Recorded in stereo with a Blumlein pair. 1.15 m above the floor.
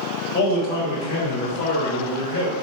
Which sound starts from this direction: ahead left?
A man speaking, at 0.3 s.